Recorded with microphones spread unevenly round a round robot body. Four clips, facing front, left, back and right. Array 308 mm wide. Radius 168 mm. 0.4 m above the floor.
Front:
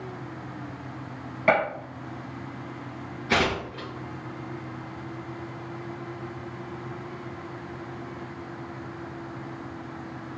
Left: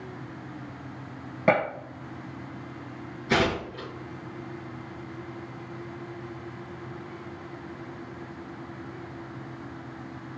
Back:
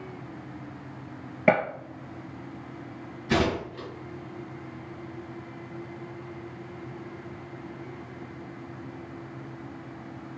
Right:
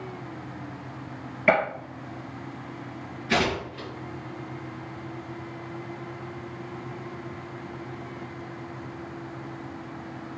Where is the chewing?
I don't hear chewing.